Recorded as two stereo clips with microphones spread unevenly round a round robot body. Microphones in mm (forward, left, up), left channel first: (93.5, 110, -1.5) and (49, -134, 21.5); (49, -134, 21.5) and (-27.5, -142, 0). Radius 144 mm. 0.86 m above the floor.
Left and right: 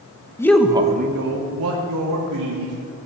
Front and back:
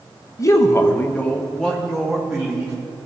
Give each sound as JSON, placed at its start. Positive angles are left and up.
{"t": 0.4, "sound": "a man speaking", "azimuth_deg": 35, "distance_m": 0.8}